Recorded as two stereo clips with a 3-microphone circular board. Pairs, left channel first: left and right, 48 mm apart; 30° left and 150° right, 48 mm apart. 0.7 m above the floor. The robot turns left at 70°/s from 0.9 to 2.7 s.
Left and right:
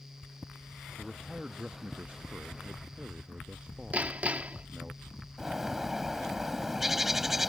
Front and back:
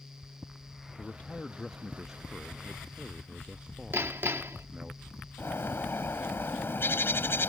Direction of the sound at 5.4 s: 5° right.